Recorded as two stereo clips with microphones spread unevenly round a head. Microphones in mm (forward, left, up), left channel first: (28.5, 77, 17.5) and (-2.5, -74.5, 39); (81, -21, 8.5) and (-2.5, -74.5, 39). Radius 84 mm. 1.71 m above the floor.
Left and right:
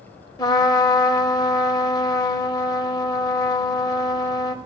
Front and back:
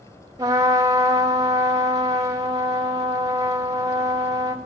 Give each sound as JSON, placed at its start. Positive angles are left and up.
{"t": 0.4, "sound": "a trumpet", "azimuth_deg": 145, "distance_m": 0.6}